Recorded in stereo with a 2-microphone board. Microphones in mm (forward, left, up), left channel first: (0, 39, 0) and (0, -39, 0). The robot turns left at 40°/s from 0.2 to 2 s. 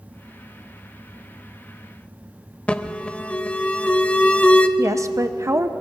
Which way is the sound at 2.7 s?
20° left (ahead or behind).